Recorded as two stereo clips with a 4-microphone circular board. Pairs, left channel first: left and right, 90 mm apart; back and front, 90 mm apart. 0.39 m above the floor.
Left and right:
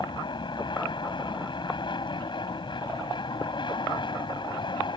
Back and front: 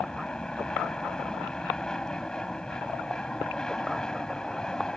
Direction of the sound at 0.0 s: 100° left.